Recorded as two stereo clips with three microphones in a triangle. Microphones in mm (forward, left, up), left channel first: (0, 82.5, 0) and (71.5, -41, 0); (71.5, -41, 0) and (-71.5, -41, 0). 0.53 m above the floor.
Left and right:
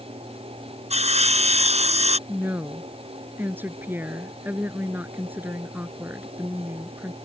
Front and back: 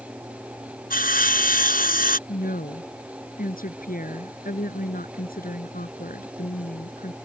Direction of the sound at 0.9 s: 15° right.